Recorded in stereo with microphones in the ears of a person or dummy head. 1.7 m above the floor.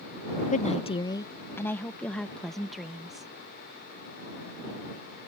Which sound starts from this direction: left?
A woman speaking, at 0.5 s.